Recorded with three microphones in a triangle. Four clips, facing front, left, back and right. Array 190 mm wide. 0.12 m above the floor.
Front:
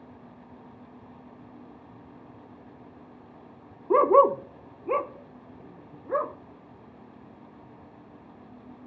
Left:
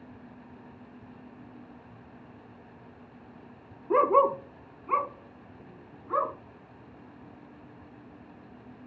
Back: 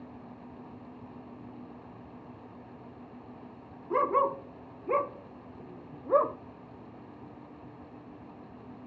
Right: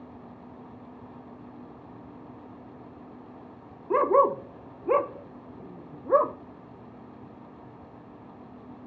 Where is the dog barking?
Straight ahead, 0.7 m; by 6.3 s 115° right, 1.7 m.